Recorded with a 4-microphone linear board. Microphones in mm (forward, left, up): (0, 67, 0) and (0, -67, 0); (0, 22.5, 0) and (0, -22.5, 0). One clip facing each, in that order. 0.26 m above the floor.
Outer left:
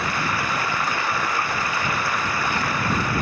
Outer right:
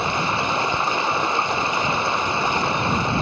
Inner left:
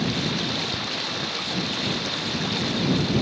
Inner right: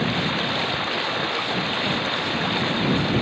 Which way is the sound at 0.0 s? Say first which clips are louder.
Outer right 3 dB, inner right 3 dB; 25° right (ahead or behind).